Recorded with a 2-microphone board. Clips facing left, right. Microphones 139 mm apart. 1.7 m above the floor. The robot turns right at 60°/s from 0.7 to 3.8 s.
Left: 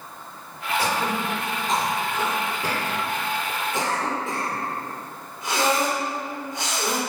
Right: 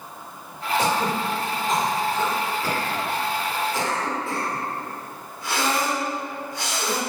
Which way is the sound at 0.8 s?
20° right (ahead or behind).